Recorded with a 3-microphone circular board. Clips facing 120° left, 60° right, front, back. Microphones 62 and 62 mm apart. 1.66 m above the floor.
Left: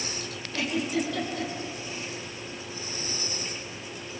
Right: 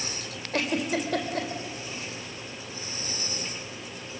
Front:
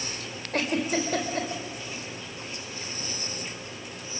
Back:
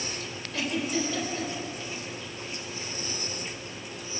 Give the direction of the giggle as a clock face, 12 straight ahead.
1 o'clock.